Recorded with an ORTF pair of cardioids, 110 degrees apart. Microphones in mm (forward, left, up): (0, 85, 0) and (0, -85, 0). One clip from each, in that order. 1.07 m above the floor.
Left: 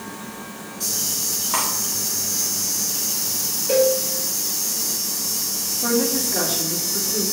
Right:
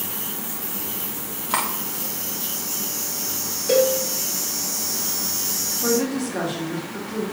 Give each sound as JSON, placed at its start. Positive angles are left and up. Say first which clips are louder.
{"t": 1.5, "sound": "cutlery clinking", "louder": "right 1 dB", "azimuth_deg": -25, "distance_m": 1.6}
{"t": 3.7, "sound": "a cowbell", "louder": "even", "azimuth_deg": -35, "distance_m": 2.5}
{"t": 5.8, "sound": "a woman speaking", "louder": "left 2 dB", "azimuth_deg": 0, "distance_m": 2.0}